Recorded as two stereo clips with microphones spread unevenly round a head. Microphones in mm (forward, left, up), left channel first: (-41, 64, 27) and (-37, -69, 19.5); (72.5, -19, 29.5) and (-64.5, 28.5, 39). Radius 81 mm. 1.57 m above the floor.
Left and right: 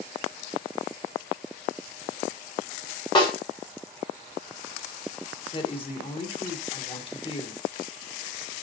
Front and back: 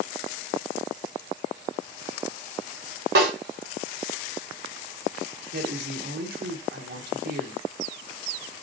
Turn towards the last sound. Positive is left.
turn(degrees=140)